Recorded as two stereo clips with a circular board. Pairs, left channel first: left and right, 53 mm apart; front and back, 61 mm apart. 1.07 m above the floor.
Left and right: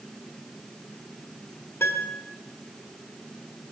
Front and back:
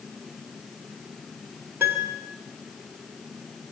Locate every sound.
1.8 s a piano: 125° left, 1.6 m